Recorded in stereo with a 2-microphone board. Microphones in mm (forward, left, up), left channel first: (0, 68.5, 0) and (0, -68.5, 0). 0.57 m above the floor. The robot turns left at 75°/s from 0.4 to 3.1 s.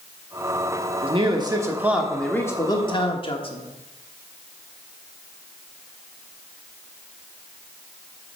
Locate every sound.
1.0 s a man speaking: 100° right, 1.3 m; by 3.6 s 105° left, 1.3 m